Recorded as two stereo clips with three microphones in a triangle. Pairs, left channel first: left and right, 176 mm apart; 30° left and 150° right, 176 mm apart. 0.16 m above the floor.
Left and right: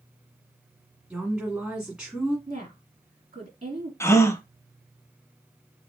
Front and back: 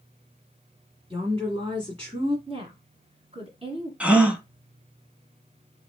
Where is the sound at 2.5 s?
110° right, 1.4 m.